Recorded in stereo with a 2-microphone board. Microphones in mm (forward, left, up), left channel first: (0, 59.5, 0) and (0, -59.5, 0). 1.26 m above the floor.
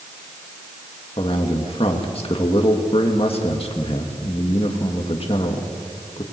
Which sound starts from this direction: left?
A man speaking, at 1.2 s.